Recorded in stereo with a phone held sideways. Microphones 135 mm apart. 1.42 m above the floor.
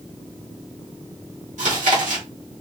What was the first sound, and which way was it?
Chewing, 70° right (ahead or behind).